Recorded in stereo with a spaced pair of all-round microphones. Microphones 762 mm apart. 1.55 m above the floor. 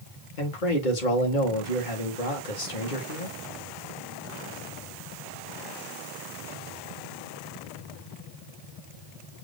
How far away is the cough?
I don't hear a cough.